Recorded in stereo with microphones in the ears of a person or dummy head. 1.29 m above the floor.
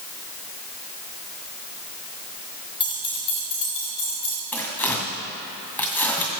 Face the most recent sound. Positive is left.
turn(degrees=10)  # may be behind; listen again after turning